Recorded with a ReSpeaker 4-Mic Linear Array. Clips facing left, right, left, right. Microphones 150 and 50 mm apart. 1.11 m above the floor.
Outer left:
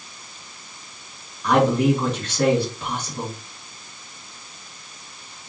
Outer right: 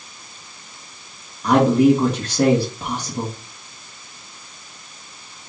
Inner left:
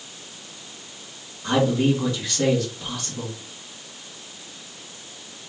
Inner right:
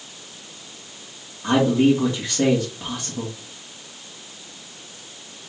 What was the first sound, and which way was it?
A man speaking, 35° right (ahead or behind).